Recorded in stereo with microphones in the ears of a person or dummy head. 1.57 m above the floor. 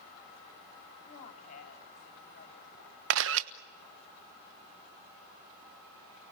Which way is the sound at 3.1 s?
60° right (ahead or behind).